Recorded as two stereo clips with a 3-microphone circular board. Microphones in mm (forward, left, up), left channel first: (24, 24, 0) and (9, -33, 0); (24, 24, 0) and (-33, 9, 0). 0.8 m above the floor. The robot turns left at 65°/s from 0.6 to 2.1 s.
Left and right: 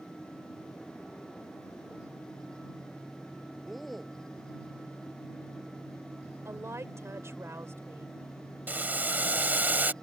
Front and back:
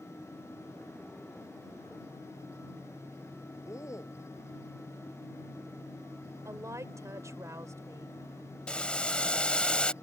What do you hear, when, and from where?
3.6 s a man speaking: 15° right
6.5 s a woman speaking: 145° right
8.7 s boiling: 50° right